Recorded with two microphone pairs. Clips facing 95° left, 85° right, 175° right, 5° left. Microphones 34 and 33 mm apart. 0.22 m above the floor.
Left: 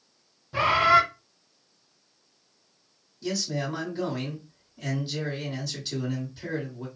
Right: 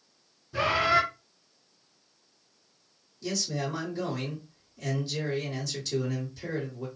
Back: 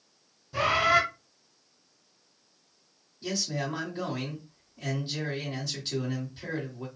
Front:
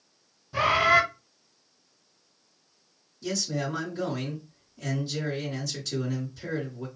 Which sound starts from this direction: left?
A bird, at 0.5 s.